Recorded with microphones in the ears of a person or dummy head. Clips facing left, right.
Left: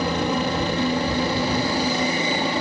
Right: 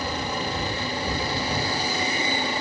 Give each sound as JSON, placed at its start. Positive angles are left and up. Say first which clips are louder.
{"t": 0.0, "sound": "a helicopter", "louder": "left 7 dB", "side_deg": 50}